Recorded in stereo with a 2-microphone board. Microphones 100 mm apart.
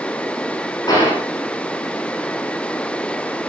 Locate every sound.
0.9 s a gunshot: 40° left (ahead or behind), 8 m